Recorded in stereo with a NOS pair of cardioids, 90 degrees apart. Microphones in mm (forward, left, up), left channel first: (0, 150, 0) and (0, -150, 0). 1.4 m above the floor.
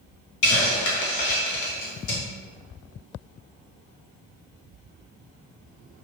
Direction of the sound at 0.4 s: 70° left.